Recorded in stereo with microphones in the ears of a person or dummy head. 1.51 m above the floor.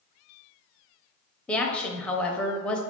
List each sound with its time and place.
1.5 s a woman speaking: 5° left (ahead or behind), 0.7 m